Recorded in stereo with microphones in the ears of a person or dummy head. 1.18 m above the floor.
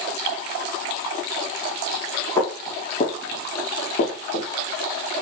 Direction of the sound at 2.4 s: 25° left (ahead or behind).